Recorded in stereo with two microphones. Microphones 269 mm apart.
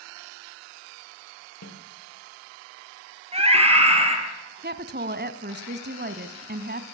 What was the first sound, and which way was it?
A snare drum, 70° left (ahead or behind).